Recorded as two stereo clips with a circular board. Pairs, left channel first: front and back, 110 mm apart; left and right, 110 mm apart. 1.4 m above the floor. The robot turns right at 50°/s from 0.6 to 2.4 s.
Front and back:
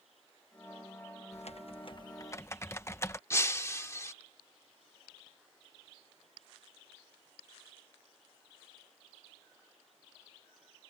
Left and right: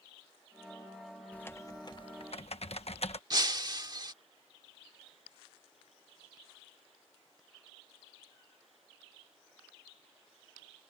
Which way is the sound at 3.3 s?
55° right.